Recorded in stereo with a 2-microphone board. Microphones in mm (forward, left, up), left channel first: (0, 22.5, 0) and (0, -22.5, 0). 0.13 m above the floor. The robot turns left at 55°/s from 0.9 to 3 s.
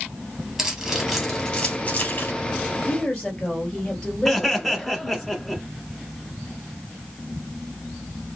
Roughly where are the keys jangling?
Centre.